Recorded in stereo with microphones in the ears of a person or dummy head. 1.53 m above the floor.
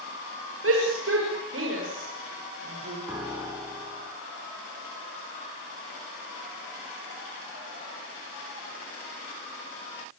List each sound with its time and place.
0.6 s a shout: 80° right, 6.5 m; by 3.0 s 90° right, 6.5 m
3.1 s a piano: 10° right (ahead or behind), 5.5 m